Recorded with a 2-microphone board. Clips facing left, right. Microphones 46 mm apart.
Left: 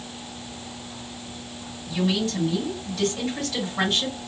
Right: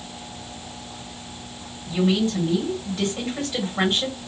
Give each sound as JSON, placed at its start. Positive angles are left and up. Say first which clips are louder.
{"t": 1.9, "sound": "a woman speaking", "louder": "right 3 dB", "side_deg": -25, "distance_m": 2.0}